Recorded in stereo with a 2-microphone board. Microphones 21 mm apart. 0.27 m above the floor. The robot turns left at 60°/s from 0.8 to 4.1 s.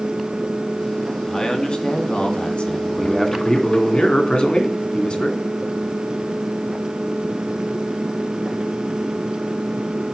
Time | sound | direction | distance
1.3 | a man speaking | 150° left | 2.5 m
3.0 | a man speaking | straight behind | 2.5 m